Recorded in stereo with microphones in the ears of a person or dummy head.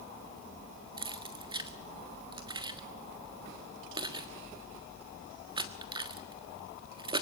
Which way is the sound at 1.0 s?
30° right (ahead or behind).